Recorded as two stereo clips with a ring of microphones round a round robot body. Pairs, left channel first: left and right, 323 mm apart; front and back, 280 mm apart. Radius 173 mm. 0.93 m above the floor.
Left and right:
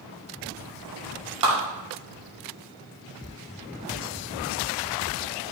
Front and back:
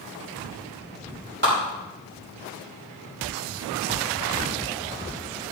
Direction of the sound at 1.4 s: 120° right.